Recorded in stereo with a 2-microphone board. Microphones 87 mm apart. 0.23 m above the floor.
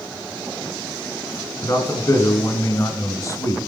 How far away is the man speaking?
About 2.5 m.